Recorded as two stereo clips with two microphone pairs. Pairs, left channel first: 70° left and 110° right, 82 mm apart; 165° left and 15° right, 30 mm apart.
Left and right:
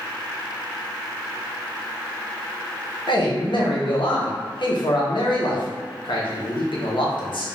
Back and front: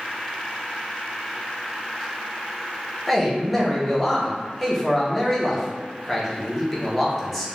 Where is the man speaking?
85° left, 0.7 m.